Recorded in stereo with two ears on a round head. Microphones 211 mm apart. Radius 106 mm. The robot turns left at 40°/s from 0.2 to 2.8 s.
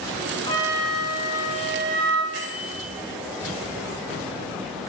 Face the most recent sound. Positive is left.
turn(degrees=-60)  # may be behind; listen again after turning